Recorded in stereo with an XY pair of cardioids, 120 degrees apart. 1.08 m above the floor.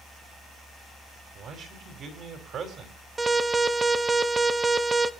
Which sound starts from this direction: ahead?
An alarm, at 3.2 s.